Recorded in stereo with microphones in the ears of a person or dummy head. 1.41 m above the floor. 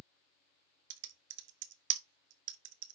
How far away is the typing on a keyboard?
About 0.8 m.